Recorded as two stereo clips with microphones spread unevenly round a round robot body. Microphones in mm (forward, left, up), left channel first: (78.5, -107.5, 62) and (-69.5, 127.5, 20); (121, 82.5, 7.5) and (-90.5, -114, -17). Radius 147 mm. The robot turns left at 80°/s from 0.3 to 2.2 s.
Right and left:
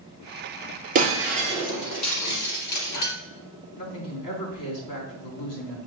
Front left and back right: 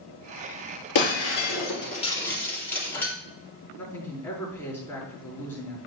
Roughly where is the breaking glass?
Ahead left.